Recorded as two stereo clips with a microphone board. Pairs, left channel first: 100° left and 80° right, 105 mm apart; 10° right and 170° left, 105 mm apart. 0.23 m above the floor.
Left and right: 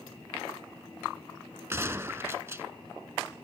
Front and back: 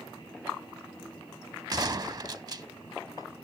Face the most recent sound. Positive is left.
turn(degrees=-140)